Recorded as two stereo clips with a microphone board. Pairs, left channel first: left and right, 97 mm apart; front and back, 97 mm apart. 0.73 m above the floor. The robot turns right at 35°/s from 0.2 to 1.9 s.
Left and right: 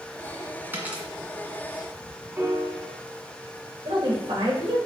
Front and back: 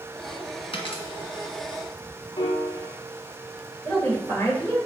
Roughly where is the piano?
Ahead right.